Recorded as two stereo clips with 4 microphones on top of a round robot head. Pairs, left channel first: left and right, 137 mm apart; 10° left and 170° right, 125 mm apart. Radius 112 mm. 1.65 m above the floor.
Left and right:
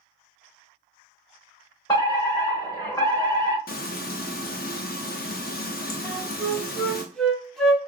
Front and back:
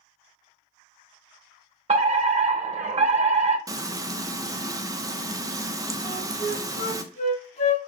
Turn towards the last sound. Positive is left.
turn(degrees=5)